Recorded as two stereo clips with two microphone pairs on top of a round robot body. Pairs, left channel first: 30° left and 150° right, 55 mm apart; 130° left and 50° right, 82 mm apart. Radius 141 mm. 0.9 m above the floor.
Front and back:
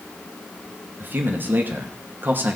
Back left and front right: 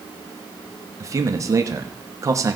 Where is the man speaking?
100° right, 1.1 m.